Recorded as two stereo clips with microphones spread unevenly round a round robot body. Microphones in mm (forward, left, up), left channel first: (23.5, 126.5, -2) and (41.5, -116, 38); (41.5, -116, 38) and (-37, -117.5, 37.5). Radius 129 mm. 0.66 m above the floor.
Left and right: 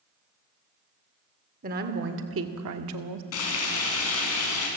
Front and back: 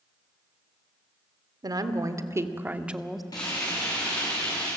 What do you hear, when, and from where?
1.6 s a woman speaking: 145° right, 1.8 m; by 3.2 s 90° right, 1.3 m
3.3 s frying: 70° left, 5 m